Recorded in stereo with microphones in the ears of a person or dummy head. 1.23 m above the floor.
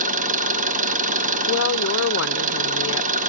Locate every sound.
0.0 s an engine running: 45° right (ahead or behind), 1.2 m
1.5 s a woman speaking: 65° left (ahead or behind), 0.8 m